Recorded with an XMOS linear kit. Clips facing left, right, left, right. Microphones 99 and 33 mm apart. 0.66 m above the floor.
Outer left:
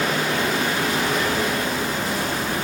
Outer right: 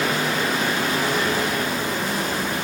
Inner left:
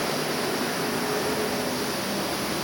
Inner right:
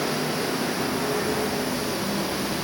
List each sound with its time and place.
Only background noise.